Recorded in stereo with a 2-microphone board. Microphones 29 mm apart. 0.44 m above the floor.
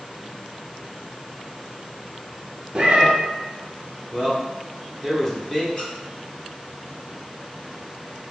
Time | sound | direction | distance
2.8 | a cat meowing | 40° right (ahead or behind) | 0.7 m
4.1 | a man speaking | 20° left (ahead or behind) | 0.8 m
5.8 | a squeak | 30° left (ahead or behind) | 1.3 m